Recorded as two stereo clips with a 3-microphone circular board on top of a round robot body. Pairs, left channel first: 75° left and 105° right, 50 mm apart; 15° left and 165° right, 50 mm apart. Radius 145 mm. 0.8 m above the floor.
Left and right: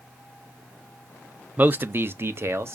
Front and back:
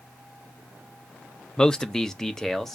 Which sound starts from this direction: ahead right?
A man speaking, at 1.6 s.